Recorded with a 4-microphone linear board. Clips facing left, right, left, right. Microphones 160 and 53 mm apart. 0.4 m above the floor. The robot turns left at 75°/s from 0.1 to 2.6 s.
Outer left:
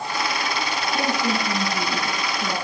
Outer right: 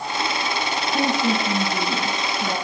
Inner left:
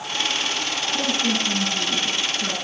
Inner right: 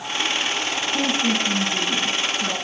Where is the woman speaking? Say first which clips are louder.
Outer right 3 dB, inner right 2 dB; 5° right, 7 m; by 2.5 s 130° right, 7 m.